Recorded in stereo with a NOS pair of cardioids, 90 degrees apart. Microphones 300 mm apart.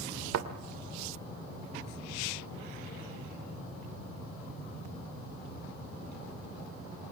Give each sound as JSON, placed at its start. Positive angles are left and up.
{"t": 0.3, "sound": "a thud", "azimuth_deg": -65, "distance_m": 2.5}